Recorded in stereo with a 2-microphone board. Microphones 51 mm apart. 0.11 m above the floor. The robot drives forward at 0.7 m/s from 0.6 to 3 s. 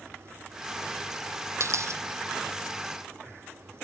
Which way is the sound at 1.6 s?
65° right (ahead or behind).